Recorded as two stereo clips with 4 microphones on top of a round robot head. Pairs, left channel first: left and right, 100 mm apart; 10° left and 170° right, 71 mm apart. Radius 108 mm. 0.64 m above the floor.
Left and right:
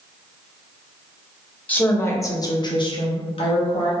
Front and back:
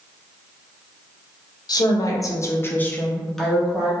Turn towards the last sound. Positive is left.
turn(degrees=105)